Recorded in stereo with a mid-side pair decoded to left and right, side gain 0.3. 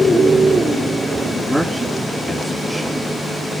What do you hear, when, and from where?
1.5 s a man speaking: 15° right, 3 m